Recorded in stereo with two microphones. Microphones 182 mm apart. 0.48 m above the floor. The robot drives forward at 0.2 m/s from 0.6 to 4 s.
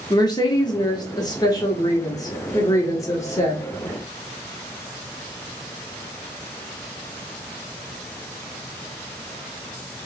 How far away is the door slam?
I don't hear a door slam.